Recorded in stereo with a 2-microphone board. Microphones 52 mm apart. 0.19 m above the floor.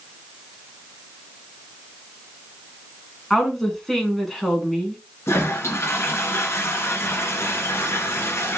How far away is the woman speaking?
About 2 m.